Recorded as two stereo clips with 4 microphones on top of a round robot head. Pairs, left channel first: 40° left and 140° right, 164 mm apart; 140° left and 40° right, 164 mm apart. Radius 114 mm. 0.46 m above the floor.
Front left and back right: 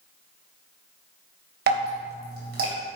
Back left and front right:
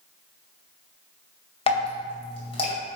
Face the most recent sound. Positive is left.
turn(degrees=-165)